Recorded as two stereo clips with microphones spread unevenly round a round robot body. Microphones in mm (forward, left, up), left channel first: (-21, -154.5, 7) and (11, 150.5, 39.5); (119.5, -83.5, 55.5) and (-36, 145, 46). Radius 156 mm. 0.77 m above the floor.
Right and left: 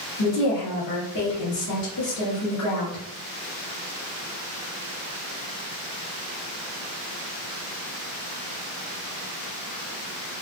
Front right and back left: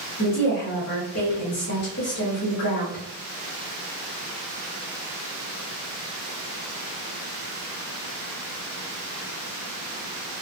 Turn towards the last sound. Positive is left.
turn(degrees=-80)